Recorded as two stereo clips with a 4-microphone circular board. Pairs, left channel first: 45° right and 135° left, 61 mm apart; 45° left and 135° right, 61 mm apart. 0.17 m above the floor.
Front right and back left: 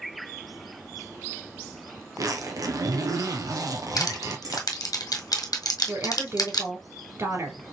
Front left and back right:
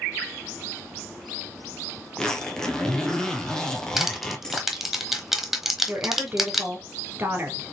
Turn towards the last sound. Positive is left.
turn(degrees=170)